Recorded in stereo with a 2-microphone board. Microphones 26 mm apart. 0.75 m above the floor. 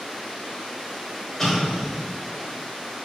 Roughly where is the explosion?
Centre.